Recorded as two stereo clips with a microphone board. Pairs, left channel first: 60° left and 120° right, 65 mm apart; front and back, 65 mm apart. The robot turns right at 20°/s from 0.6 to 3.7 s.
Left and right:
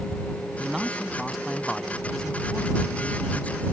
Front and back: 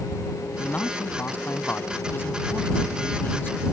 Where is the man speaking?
45° right; by 3.6 s 20° left.